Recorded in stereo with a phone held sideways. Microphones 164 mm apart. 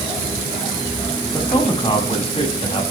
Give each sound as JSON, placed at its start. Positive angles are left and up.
{"t": 1.3, "sound": "a man speaking", "side_deg": 30, "distance_m": 7.5}